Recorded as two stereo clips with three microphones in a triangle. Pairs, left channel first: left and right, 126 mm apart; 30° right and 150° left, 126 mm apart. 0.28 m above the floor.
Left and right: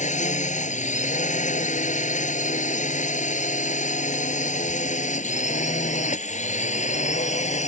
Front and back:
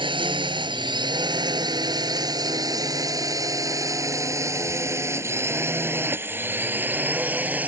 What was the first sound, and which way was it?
A drone, 100° left.